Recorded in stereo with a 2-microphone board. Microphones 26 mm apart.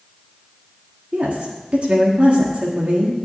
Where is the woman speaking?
60° right (ahead or behind), 1.5 m.